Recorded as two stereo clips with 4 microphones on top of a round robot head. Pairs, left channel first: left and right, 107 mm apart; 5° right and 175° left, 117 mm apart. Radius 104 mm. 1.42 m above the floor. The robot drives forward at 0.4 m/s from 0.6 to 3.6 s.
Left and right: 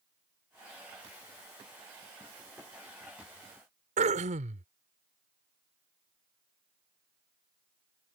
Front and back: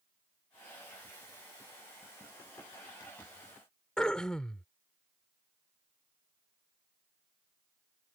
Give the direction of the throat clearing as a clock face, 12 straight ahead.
3 o'clock.